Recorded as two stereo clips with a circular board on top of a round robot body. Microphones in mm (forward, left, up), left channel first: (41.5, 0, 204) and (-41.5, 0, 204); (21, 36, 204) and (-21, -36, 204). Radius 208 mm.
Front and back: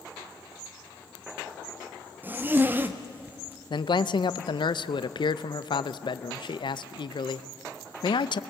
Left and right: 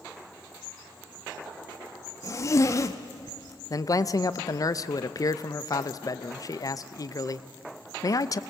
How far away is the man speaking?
About 0.7 m.